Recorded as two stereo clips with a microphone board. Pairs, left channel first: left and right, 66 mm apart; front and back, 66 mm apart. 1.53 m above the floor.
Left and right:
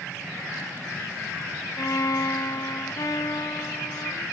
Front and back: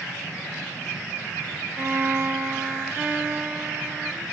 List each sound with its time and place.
1.8 s a violin: 120° left, 0.6 m